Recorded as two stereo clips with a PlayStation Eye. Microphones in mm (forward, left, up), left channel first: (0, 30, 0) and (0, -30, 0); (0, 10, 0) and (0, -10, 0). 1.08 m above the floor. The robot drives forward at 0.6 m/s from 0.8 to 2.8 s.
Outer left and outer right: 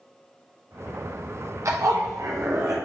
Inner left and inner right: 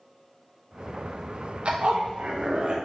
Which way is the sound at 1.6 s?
60° right (ahead or behind).